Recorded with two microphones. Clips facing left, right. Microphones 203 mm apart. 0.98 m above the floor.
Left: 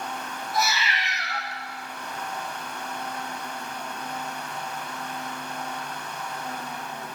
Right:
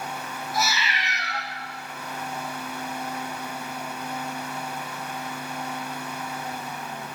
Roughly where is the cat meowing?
Centre.